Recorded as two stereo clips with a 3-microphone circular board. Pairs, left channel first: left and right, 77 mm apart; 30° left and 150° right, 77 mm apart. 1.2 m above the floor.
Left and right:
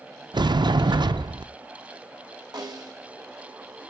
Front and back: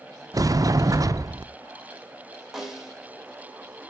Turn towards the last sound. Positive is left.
turn(degrees=-65)